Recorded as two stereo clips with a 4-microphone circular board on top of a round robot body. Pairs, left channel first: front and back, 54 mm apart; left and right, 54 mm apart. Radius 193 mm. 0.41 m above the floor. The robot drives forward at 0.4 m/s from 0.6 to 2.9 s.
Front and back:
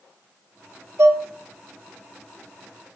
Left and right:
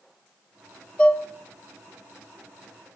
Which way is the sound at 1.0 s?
155° left.